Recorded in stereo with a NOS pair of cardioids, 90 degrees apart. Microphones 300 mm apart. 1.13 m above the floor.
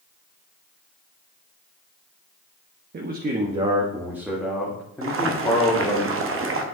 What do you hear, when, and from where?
2.9 s a man speaking: 35° right, 1.2 m; by 6.0 s 15° left, 2.5 m
5.0 s boiling: 45° right, 1.2 m